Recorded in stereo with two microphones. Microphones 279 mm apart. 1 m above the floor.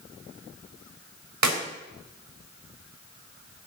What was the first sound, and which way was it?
A clap, 80° right.